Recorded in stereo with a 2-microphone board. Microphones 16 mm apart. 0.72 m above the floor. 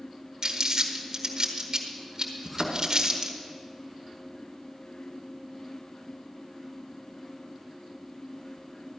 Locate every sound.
0.4 s crumpling: 45° right (ahead or behind), 1.4 m
2.5 s a thud: 20° left (ahead or behind), 1.7 m